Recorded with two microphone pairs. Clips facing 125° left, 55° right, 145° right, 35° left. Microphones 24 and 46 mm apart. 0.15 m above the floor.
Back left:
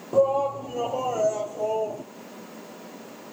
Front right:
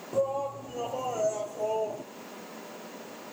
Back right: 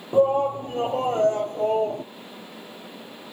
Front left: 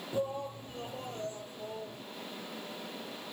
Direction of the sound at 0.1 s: 175° right.